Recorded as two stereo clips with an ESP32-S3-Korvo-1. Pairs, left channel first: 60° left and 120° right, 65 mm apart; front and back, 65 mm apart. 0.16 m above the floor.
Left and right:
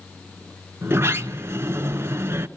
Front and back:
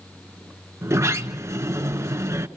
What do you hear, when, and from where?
0.8 s a sliding door: 160° right, 1.4 m